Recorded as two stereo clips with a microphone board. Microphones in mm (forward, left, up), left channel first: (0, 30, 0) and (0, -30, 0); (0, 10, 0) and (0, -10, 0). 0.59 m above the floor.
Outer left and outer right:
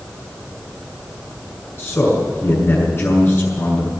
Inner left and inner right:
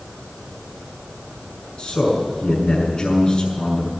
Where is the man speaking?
40° left (ahead or behind), 6.5 m.